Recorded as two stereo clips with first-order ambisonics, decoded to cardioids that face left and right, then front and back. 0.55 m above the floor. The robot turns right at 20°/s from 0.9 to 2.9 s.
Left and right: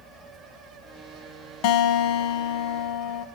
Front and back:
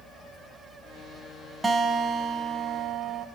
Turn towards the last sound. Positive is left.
turn(degrees=125)